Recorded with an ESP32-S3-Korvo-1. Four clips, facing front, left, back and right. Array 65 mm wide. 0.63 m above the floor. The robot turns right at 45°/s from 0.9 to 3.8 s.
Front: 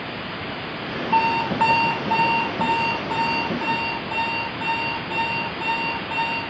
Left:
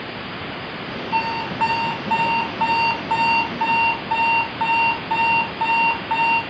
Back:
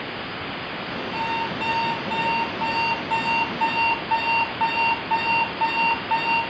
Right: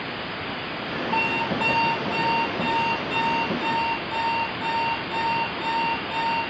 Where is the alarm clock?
Straight ahead, 4 m; by 6.4 s 120° left, 4 m.